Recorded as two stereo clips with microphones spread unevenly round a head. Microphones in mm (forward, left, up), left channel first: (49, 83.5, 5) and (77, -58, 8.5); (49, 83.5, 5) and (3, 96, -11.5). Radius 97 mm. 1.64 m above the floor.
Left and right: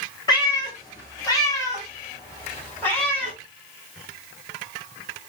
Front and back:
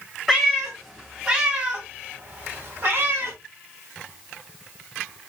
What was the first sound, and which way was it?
A cat meowing, 55° left.